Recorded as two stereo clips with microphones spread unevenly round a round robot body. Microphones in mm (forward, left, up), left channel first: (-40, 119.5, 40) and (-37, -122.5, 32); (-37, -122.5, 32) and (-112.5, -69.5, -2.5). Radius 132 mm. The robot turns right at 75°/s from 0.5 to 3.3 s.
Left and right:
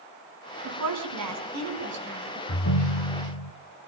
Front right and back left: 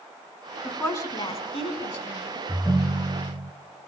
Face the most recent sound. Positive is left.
turn(degrees=100)